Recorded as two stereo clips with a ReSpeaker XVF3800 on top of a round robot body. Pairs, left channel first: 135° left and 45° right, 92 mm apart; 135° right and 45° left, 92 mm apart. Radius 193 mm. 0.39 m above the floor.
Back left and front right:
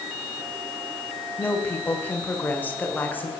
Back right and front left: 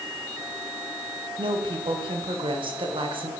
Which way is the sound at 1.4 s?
65° left.